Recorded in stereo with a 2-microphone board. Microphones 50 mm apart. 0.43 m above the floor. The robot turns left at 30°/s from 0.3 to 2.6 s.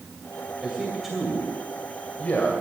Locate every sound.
0.6 s a man speaking: 15° right (ahead or behind), 2.5 m; by 2.5 s 30° left (ahead or behind), 2.5 m